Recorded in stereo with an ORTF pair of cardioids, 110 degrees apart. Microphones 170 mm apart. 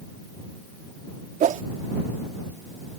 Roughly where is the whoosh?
Ahead right.